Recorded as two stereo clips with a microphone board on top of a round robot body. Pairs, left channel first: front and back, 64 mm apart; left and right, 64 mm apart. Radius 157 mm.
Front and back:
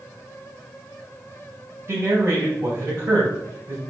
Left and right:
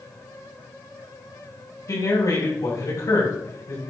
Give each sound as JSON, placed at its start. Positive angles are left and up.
{"t": 1.9, "sound": "a man speaking", "azimuth_deg": 130, "distance_m": 5.0}